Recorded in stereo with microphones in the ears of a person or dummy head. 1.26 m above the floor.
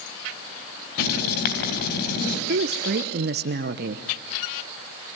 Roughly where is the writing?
Left.